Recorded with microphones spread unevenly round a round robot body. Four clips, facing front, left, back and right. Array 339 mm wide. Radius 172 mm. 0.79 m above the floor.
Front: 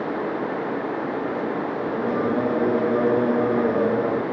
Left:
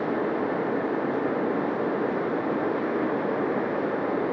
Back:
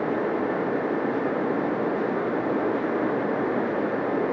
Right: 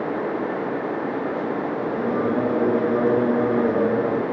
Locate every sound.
1.9 s singing: 55° right